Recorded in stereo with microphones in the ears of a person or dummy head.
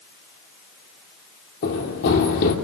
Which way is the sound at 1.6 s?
55° left (ahead or behind).